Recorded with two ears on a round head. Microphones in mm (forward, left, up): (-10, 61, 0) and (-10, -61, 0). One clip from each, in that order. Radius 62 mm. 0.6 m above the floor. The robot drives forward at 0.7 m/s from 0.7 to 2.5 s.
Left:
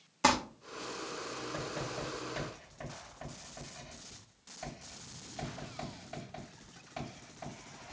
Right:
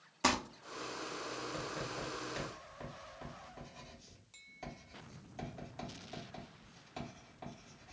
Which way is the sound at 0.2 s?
5° left (ahead or behind).